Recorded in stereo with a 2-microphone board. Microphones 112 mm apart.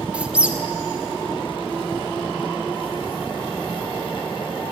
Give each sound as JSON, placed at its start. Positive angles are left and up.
{"t": 0.1, "sound": "a squeak", "side_deg": -10, "distance_m": 0.5}